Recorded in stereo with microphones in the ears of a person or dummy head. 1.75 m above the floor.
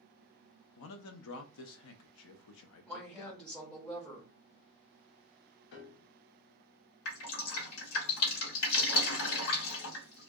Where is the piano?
60° left (ahead or behind), 0.7 m.